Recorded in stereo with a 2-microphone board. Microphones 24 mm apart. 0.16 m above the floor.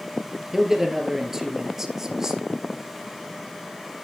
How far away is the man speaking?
About 2.5 m.